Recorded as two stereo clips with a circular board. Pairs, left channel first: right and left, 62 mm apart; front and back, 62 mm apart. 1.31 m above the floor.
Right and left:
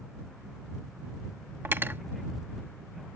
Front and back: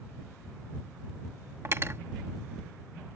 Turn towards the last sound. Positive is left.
turn(degrees=140)